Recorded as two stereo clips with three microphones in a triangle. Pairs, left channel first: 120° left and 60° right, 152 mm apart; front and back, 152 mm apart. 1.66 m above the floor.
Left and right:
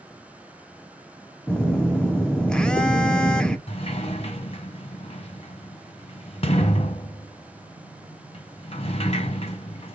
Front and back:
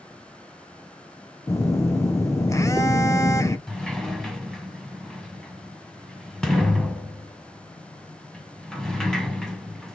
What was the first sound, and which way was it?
A phone buzzing, 40° left.